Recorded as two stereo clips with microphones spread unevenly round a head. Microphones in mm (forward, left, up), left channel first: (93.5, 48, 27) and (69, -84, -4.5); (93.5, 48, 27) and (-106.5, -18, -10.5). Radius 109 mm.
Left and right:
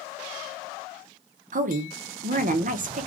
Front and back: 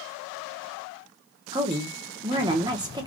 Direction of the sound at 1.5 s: 95° right.